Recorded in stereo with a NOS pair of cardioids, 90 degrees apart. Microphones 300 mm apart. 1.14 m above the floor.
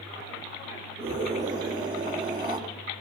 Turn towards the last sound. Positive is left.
turn(degrees=-15)